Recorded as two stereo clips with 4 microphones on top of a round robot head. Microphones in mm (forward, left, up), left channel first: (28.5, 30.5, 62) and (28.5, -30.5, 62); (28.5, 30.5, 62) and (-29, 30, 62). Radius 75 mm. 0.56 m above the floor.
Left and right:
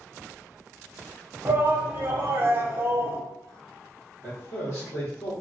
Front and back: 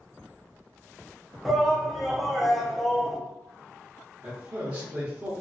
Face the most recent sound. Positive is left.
turn(degrees=120)